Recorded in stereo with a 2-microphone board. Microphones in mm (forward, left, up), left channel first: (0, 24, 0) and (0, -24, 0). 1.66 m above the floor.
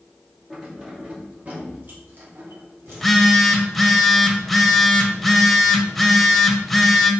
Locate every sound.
0.5 s keys jangling: 15° right (ahead or behind), 2.5 m; by 3.3 s 65° right (ahead or behind), 3.5 m
2.9 s a phone buzzing: centre (ahead or behind), 1.3 m